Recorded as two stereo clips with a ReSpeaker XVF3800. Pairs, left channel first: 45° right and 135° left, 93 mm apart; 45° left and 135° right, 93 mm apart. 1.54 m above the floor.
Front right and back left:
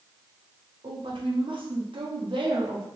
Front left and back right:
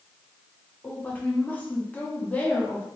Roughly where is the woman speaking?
Behind left.